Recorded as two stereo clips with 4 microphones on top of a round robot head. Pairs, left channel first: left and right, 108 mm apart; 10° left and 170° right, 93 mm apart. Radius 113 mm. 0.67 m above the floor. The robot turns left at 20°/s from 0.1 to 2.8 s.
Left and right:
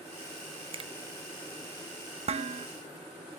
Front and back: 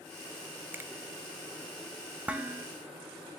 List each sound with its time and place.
0.7 s a finger snap: 105° right, 0.9 m; by 0.9 s 110° right, 0.9 m
2.3 s dishes clattering: 95° right, 0.7 m; by 2.7 s 105° right, 0.7 m